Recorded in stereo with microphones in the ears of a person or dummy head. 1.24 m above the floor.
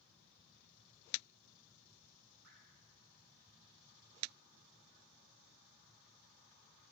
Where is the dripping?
65° right (ahead or behind), 4 m.